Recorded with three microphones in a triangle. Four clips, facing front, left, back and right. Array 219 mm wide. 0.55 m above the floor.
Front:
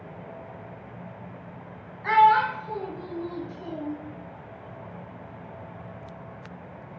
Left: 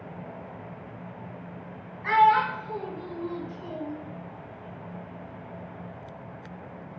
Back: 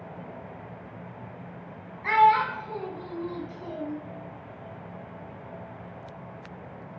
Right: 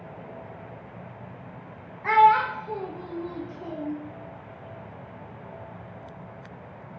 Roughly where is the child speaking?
Right.